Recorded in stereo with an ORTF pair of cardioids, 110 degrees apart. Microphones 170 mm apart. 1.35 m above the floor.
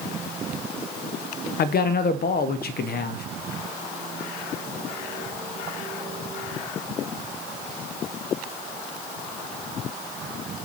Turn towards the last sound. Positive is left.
turn(degrees=65)